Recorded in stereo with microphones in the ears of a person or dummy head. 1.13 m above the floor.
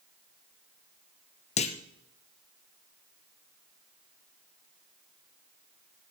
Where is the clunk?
30° left (ahead or behind), 0.9 m.